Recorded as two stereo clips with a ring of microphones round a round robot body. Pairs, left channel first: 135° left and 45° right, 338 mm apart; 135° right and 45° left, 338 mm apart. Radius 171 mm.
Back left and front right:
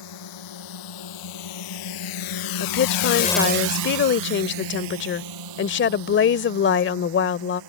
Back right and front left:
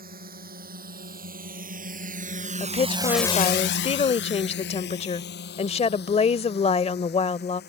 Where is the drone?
110° left; by 7.7 s 70° right.